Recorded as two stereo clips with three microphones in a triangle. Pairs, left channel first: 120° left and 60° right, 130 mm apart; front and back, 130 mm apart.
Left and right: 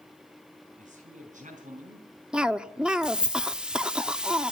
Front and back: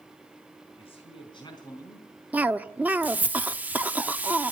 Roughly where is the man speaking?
Ahead right.